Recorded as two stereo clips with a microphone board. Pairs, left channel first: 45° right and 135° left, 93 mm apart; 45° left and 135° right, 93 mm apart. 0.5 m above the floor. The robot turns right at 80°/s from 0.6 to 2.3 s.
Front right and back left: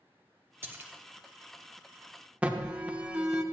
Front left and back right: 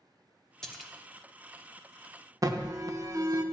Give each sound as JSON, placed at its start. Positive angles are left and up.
{"t": 0.6, "sound": "a splash", "azimuth_deg": 120, "distance_m": 1.1}
{"t": 2.4, "sound": "an alarm", "azimuth_deg": -155, "distance_m": 0.8}